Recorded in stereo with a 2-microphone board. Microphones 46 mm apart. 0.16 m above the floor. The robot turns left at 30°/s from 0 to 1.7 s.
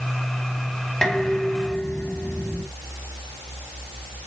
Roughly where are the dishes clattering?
Centre.